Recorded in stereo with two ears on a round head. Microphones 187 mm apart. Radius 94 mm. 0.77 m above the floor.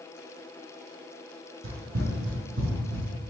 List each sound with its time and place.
1.6 s running footsteps: 50° right (ahead or behind), 1.4 m